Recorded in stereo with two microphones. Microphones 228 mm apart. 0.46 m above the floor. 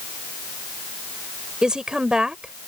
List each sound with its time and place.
1.6 s a woman speaking: 5° right (ahead or behind)